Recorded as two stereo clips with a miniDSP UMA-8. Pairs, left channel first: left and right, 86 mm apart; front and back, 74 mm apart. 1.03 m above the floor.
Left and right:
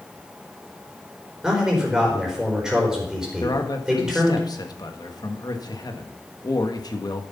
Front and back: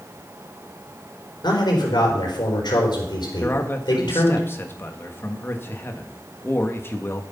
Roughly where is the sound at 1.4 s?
Ahead.